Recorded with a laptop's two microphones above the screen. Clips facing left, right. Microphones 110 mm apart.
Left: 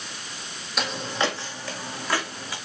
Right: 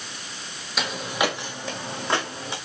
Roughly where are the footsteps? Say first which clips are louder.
Right 1 dB; centre.